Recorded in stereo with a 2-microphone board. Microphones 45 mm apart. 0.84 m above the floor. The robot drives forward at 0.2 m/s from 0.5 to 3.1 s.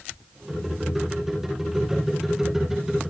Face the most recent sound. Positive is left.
No sound to turn to.